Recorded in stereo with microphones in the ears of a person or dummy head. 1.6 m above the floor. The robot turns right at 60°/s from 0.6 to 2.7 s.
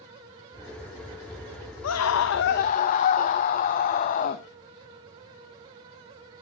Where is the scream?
85° left, 0.6 m; by 4.4 s 135° left, 0.6 m.